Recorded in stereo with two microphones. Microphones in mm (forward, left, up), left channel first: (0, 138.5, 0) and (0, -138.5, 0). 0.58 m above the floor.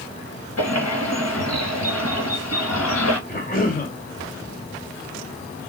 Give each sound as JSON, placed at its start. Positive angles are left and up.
{"t": 0.6, "sound": "a bird", "side_deg": 70, "distance_m": 1.0}
{"t": 3.3, "sound": "a cough", "side_deg": 30, "distance_m": 1.2}